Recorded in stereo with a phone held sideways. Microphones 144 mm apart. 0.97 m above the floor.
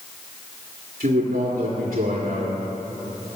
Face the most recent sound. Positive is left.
turn(degrees=-80)